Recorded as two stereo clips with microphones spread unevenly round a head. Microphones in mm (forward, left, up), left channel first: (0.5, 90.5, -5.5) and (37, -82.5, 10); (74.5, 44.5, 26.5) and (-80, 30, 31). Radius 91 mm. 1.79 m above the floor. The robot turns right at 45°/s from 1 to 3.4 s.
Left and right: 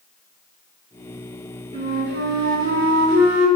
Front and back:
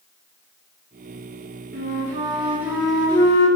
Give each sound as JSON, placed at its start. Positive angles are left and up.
{"t": 1.7, "sound": "a flute", "azimuth_deg": -135, "distance_m": 4.0}